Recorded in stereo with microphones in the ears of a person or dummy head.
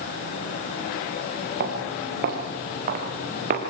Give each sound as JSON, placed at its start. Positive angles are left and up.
{"t": 1.6, "sound": "footsteps", "side_deg": -50, "distance_m": 6.0}